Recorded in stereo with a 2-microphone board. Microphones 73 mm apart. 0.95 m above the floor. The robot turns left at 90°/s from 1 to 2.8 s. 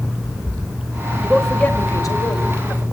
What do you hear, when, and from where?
1.2 s a man speaking: 160° right, 4 m; by 2.8 s 60° left, 4 m